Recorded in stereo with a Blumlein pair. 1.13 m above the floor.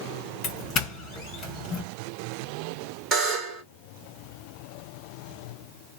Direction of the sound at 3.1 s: 25° right.